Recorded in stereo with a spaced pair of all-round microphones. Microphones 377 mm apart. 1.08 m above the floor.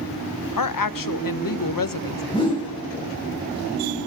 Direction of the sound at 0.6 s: 60° left (ahead or behind).